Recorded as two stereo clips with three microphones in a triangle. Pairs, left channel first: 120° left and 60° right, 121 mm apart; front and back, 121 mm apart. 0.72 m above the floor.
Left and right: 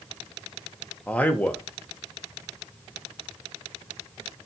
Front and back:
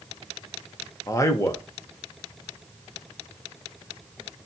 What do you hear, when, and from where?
1.1 s a man speaking: 50° left, 0.6 m